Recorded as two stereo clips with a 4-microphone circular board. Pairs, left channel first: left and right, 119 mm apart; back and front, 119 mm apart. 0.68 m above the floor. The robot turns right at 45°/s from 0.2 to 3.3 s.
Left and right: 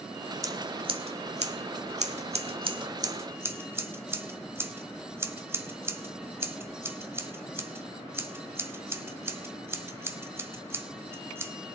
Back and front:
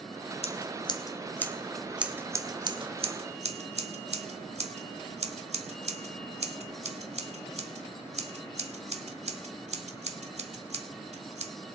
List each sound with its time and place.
0.4 s scissors: 150° right, 1.0 m; by 11.5 s 20° right, 1.0 m